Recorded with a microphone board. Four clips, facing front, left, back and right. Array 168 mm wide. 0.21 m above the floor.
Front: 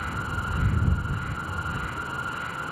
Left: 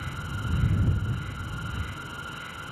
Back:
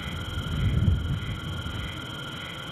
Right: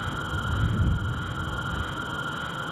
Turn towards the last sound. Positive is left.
turn(degrees=-35)